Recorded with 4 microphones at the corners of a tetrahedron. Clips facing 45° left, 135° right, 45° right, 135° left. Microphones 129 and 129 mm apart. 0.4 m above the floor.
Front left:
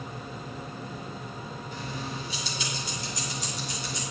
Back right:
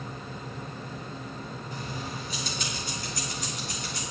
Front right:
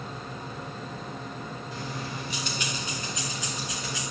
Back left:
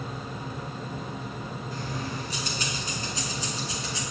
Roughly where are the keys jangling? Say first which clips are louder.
Front left 1 dB, back left 2 dB; behind.